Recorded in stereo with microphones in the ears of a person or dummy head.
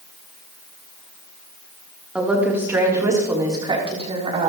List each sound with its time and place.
2.1 s a woman speaking: 5° right (ahead or behind), 3 m; by 4.5 s 35° right (ahead or behind), 3.5 m